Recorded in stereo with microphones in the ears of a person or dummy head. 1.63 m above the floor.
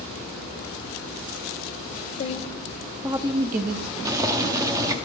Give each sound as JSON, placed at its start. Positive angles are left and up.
{"t": 2.2, "sound": "a woman speaking", "side_deg": 40, "distance_m": 0.7}
{"t": 4.0, "sound": "boiling", "side_deg": -15, "distance_m": 0.7}